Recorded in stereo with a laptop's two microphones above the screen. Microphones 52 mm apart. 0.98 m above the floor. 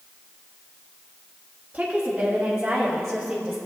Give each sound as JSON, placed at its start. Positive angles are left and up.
{"t": 1.7, "sound": "a woman speaking", "side_deg": -20, "distance_m": 1.9}